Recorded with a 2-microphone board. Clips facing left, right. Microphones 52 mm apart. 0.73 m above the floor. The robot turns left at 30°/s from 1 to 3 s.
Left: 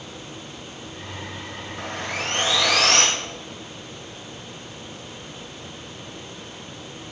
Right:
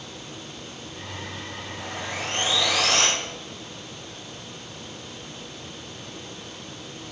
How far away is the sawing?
About 1.9 m.